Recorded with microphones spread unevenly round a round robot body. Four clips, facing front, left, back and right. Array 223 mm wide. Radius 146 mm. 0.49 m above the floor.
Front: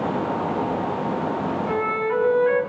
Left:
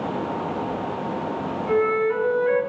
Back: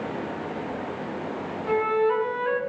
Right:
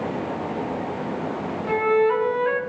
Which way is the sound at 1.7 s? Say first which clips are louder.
Right 2 dB, back 5 dB; 85° right.